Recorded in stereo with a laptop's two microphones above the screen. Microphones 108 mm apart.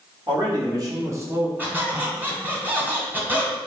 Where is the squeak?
15° right (ahead or behind), 1.2 m.